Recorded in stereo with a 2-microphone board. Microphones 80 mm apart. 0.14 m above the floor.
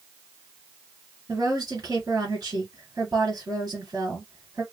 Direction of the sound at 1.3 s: 50° right (ahead or behind).